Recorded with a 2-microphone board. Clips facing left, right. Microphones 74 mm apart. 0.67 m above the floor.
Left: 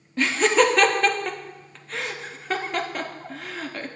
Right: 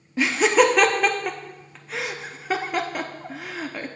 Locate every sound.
0.2 s laughter: 5° right (ahead or behind), 0.5 m